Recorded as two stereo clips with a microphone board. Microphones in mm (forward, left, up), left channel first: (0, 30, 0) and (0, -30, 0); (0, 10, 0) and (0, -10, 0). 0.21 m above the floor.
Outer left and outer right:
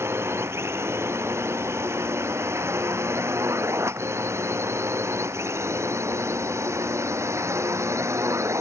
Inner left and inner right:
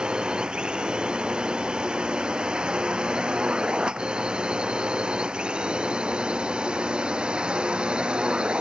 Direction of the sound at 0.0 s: 45° right (ahead or behind).